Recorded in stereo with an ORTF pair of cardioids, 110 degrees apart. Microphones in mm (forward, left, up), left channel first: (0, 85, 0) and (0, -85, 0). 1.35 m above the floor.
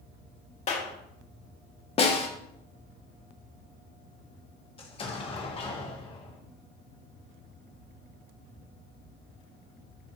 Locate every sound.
0.7 s a clap: 40° left, 2 m
2.0 s a snare drum: 35° left, 1.6 m
4.8 s an explosion: 30° left, 1.8 m